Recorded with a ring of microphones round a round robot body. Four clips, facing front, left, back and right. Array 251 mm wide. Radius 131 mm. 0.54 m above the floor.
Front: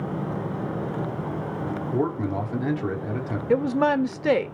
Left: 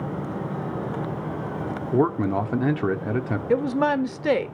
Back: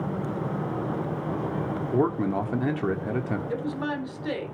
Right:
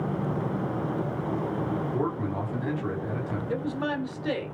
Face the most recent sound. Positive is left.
turn(degrees=45)